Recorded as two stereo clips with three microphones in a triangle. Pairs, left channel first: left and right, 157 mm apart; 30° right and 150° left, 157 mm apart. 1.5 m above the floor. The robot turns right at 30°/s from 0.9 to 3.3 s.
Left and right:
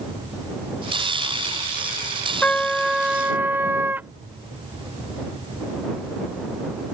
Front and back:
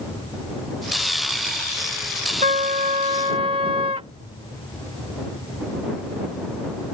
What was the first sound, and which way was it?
A trumpet, 170° left.